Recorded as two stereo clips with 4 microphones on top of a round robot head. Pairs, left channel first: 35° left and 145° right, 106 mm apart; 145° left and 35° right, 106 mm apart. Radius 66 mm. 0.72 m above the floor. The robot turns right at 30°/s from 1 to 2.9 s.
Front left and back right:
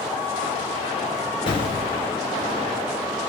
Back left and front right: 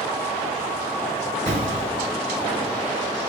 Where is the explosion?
15° right, 2.5 m; by 2.1 s 5° left, 2.5 m.